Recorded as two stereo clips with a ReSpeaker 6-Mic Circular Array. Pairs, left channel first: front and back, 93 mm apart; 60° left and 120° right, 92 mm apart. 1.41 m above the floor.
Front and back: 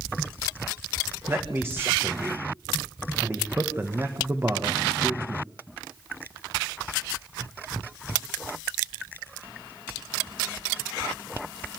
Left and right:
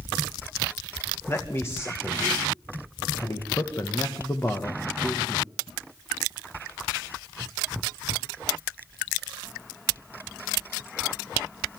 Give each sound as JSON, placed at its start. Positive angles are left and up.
{"t": 1.3, "sound": "a man speaking", "azimuth_deg": 120, "distance_m": 1.7}